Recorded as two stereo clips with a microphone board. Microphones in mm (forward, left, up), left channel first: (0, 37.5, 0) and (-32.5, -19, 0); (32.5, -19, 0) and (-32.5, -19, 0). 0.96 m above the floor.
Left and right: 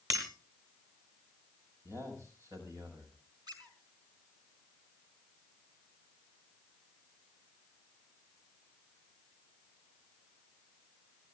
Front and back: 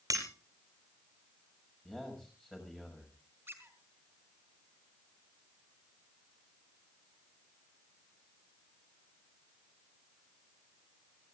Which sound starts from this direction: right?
A man speaking, at 1.9 s.